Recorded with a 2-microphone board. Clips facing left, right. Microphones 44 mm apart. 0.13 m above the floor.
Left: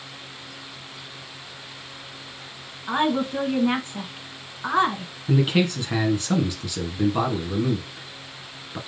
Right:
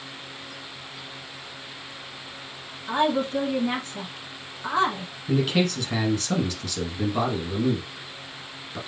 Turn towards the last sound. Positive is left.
turn(degrees=15)  # may be behind; listen again after turning